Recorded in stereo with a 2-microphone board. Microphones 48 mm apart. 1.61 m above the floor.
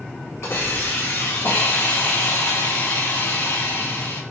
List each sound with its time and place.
0.4 s a hiss: 70° left (ahead or behind), 4 m